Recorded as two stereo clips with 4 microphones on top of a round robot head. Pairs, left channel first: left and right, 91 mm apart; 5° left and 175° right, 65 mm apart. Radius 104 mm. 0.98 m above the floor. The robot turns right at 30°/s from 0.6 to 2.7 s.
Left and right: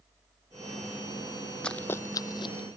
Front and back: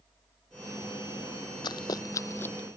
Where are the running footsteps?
10° left; by 2.7 s 75° left.